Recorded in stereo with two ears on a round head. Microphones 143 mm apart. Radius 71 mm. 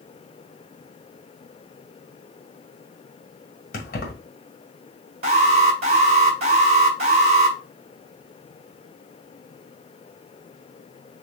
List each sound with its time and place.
3.7 s keys jangling: 60° left (ahead or behind), 1.9 m
5.2 s an alarm: 40° right (ahead or behind), 1.6 m